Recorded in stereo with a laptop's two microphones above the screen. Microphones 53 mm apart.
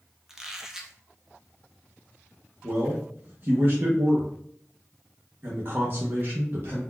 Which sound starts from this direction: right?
A man speaking, at 2.6 s.